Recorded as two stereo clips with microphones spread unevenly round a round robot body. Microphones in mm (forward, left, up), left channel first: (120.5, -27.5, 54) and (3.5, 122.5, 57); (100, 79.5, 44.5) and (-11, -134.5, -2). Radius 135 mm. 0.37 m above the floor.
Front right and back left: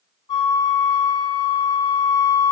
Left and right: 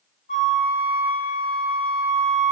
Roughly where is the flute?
Ahead.